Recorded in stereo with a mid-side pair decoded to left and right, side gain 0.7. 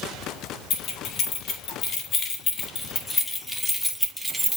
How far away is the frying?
I don't hear frying.